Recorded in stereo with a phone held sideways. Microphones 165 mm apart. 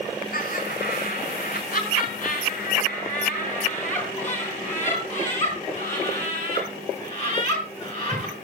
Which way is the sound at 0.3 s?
65° left (ahead or behind).